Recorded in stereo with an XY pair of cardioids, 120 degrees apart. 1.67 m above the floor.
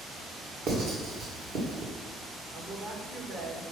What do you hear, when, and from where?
0.7 s writing: 60° right, 2.5 m
2.5 s a woman speaking: 55° right, 2 m